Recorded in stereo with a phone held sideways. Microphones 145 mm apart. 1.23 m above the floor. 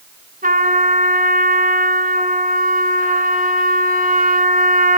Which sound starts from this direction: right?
A trumpet, at 0.4 s.